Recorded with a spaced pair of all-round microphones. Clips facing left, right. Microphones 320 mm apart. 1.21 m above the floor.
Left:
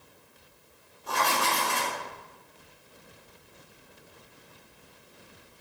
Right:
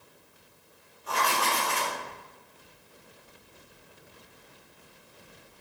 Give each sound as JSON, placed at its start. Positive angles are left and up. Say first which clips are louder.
{"t": 1.1, "sound": "writing", "louder": "left 1 dB", "side_deg": 50, "distance_m": 2.0}